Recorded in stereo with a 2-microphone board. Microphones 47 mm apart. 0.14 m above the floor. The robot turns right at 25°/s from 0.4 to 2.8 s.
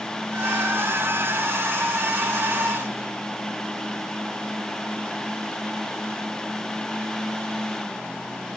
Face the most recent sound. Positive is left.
No sound to turn to.